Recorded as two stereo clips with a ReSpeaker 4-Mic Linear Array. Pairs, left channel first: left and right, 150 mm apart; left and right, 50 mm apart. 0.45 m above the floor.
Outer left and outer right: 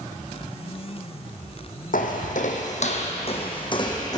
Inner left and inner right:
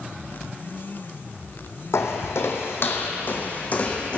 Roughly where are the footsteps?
Left.